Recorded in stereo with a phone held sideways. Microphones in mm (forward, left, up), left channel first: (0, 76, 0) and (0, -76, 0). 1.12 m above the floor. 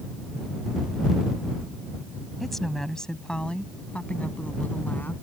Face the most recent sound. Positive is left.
turn(degrees=10)  # may be behind; listen again after turning